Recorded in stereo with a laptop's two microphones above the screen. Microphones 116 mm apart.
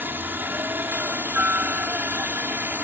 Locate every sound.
0.0 s a helicopter: 15° right (ahead or behind)